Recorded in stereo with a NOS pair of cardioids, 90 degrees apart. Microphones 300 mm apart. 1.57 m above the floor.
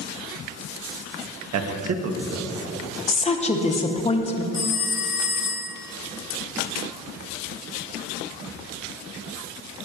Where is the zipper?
I don't hear a zipper.